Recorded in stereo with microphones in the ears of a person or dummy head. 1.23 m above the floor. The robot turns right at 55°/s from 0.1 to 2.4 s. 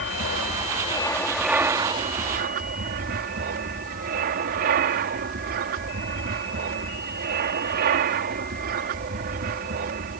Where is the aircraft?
110° left; by 10.2 s 125° right.